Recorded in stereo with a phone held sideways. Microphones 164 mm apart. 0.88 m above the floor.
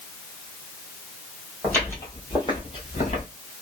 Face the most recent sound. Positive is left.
turn(degrees=50)  # may be behind; listen again after turning